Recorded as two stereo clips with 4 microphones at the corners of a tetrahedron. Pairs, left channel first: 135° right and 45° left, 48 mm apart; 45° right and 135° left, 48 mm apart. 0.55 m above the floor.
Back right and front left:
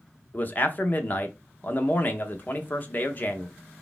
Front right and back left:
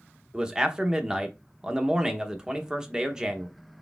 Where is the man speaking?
160° right, 0.8 m.